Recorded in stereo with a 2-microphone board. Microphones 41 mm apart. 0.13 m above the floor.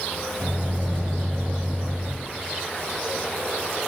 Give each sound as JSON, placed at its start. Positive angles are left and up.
{"t": 0.4, "sound": "a microwave", "side_deg": -45, "distance_m": 2.0}